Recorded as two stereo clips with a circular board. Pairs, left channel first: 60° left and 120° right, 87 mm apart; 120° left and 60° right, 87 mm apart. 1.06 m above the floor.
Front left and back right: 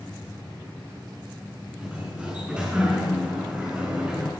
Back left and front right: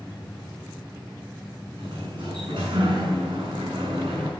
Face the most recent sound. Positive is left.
turn(degrees=-40)